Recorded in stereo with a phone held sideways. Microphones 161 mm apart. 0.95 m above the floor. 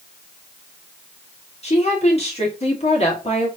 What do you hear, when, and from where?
1.6 s a woman speaking: 40° left (ahead or behind), 1.8 m